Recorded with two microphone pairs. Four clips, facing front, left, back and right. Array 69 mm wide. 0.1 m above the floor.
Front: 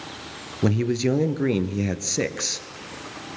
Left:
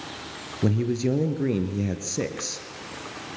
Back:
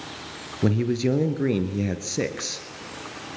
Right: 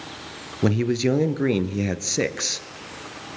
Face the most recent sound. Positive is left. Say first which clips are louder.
# right 3 dB, front 1 dB
turn(degrees=-75)